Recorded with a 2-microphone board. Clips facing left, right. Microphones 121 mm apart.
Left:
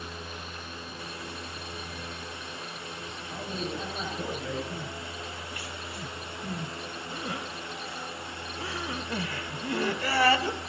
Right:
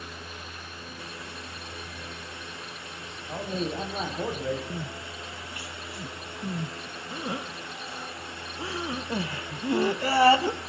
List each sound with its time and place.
3.3 s a man speaking: 40° right (ahead or behind), 4 m
4.7 s crying: 25° right (ahead or behind), 0.9 m